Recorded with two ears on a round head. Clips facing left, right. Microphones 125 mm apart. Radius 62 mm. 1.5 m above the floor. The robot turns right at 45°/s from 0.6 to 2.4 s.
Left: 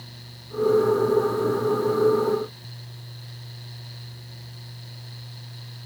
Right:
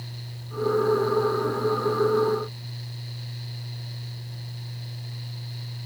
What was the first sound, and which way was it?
Only background noise.